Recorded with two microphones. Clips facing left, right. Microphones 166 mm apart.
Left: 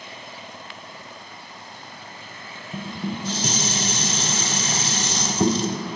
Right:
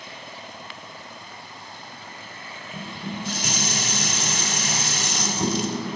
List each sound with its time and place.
2.7 s dishes clattering: 35° left (ahead or behind), 0.8 m